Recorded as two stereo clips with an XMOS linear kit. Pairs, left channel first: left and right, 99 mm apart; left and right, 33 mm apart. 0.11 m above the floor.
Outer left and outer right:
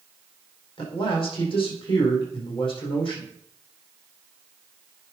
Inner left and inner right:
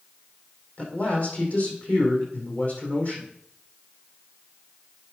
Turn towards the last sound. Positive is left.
turn(degrees=55)  # may be behind; listen again after turning